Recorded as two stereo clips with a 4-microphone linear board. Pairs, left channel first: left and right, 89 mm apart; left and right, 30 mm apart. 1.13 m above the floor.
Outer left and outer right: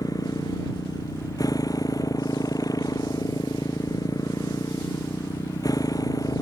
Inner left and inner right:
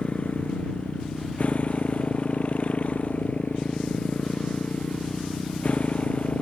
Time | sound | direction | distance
0.0 | a motorcycle | 45° left (ahead or behind) | ?